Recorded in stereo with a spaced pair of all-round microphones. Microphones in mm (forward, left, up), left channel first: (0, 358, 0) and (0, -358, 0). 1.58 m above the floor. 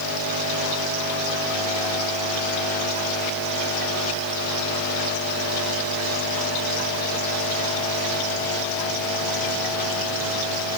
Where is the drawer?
No drawer in this recording.